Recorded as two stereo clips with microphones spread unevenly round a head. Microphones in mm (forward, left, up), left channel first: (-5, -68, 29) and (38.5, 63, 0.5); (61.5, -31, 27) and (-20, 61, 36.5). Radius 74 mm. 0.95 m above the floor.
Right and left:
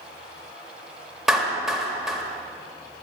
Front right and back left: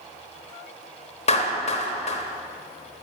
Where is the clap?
15° right, 1.2 m.